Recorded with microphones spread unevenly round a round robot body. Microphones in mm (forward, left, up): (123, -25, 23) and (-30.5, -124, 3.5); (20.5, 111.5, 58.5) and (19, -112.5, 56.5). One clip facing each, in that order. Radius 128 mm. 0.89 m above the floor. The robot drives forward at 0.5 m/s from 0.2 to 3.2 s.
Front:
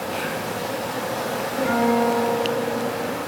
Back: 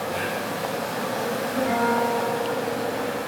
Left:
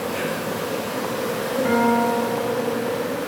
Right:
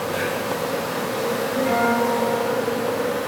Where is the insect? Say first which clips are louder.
Even, right 1 dB; 100° left, 3.5 m; by 3.3 s 120° left, 4 m.